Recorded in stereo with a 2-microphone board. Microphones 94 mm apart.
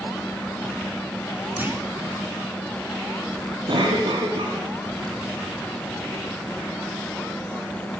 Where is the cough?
60° right (ahead or behind), 2 m.